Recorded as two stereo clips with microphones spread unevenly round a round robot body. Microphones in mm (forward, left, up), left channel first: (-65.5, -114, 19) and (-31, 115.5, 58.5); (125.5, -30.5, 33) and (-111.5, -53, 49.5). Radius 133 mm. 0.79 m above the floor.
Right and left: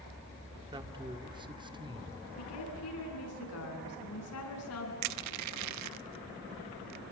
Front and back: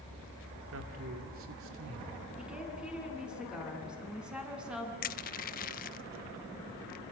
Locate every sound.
0.7 s a man speaking: 155° left, 2.5 m
2.4 s a woman speaking: 90° right, 7 m
5.0 s crushing: 60° left, 0.6 m